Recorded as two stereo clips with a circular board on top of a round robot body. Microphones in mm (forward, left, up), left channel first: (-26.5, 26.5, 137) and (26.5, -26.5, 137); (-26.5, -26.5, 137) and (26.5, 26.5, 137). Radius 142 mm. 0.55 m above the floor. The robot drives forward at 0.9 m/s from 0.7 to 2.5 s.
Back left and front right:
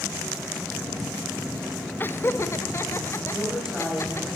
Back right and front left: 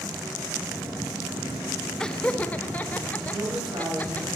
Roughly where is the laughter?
Behind left.